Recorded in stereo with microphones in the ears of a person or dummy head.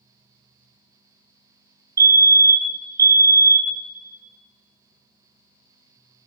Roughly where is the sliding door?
No sliding door in this recording.